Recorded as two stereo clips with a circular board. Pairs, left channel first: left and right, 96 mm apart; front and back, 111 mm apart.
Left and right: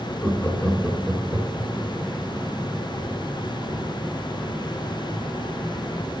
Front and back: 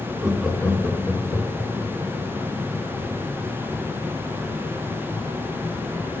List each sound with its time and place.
0.2 s laughter: 120° left, 1.2 m; by 1.7 s 15° left, 2 m